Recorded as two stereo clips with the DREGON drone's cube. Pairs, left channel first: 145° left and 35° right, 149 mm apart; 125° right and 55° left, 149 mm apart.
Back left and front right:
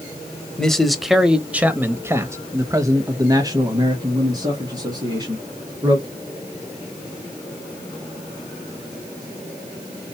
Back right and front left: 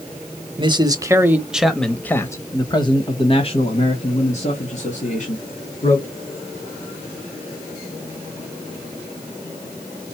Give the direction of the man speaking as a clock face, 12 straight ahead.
10 o'clock.